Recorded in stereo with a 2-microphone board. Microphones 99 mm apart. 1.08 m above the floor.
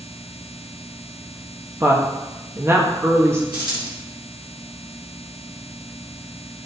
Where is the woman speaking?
25° right (ahead or behind), 1.5 m.